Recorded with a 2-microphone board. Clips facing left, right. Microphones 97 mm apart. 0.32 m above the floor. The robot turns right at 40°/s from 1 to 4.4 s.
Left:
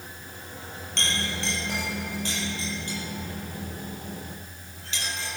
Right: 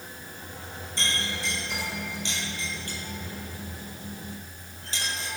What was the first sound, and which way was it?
A clink, 80° left.